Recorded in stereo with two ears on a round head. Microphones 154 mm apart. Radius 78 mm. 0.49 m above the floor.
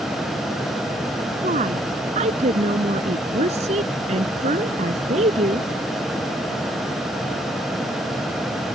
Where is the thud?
No thud in this recording.